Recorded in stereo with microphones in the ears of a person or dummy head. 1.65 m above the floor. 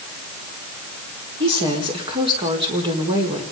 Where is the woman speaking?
30° right (ahead or behind), 4.5 m.